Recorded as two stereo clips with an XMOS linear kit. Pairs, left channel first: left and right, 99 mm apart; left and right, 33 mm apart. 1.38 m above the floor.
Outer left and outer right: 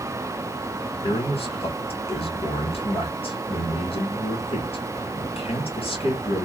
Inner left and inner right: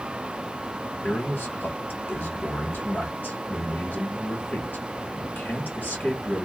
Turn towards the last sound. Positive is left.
turn(degrees=80)